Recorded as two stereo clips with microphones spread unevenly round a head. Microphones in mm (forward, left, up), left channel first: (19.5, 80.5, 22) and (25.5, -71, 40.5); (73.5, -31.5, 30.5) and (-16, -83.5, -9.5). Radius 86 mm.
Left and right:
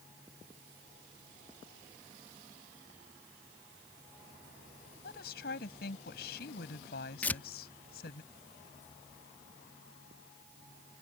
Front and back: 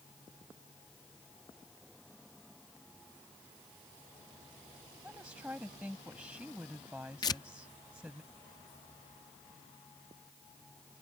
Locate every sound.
5.0 s a woman speaking: 125° left
7.2 s tearing paper: 10° left